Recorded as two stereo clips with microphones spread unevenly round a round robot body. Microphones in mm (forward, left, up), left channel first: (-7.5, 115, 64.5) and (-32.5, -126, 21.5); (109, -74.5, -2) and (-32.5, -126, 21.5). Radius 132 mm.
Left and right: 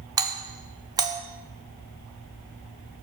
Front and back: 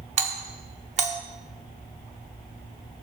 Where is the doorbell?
145° right, 1.4 m.